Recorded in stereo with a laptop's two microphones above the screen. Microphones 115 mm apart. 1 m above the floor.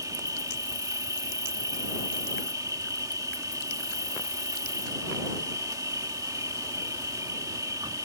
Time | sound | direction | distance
0.0 | an insect | 35° right (ahead or behind) | ?